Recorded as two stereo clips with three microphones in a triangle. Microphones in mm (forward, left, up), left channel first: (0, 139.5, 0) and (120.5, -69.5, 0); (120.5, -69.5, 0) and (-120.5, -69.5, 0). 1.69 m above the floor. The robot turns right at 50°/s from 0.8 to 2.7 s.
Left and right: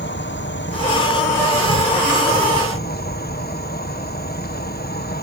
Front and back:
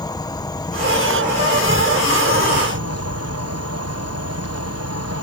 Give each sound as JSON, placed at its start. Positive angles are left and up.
{"t": 0.0, "sound": "an insect", "azimuth_deg": 75}